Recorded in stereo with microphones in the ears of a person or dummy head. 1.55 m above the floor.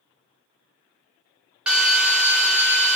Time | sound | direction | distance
1.7 | a drill | 5° right (ahead or behind) | 0.7 m